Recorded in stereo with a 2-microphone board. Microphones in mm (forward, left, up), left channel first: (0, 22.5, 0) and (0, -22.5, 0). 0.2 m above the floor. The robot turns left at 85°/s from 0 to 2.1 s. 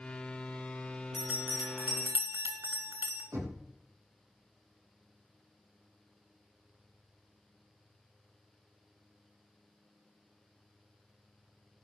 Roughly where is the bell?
Ahead right.